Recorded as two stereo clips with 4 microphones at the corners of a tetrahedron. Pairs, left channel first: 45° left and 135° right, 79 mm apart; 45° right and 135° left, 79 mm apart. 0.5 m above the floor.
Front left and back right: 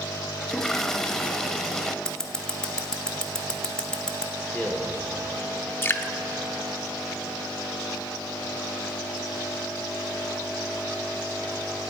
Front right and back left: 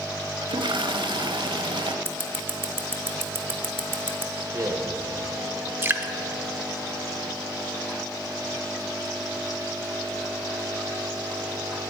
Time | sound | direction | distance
0.4 | a toilet flushing | 130° left | 0.6 m
2.0 | scissors | 115° left | 0.8 m
4.3 | a man speaking | 115° left | 1.5 m
5.8 | dripping | 95° left | 0.6 m